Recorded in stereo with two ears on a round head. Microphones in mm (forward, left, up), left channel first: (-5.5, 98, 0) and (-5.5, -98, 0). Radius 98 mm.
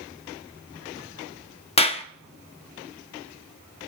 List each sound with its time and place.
1.8 s a clap: 30° left (ahead or behind), 0.8 m